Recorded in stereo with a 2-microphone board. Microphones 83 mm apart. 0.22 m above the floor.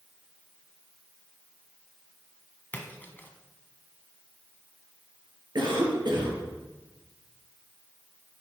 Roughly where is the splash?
Left.